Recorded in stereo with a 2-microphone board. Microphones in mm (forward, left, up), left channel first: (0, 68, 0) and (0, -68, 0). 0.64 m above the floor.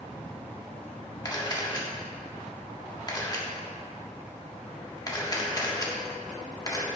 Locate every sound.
1.2 s a camera shutter: 30° left (ahead or behind), 1.7 m